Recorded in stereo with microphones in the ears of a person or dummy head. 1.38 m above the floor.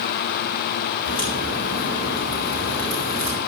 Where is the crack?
40° left (ahead or behind), 6 m.